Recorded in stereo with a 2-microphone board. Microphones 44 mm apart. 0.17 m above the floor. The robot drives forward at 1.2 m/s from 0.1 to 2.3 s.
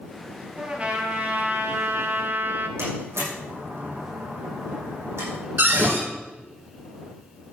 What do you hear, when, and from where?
0.6 s a trumpet: 25° right (ahead or behind), 2 m; by 2.7 s 55° right (ahead or behind), 1.1 m
2.8 s a door slam: 80° right, 6.5 m
5.6 s a cupboard door: 50° right (ahead or behind), 3 m